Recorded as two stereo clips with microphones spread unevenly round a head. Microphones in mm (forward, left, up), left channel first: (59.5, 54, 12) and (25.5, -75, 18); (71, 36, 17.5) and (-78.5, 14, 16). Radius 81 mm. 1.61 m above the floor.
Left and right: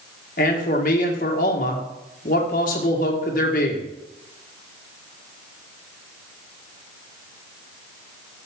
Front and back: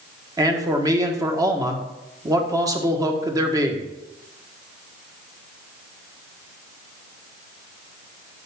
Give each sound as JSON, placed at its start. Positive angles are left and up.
{"t": 0.4, "sound": "a man speaking", "azimuth_deg": 120, "distance_m": 1.5}